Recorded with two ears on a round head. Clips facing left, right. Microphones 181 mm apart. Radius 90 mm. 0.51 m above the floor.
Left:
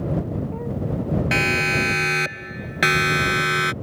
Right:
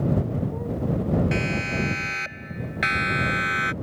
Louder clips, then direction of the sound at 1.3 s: Left 3 dB; 80° left.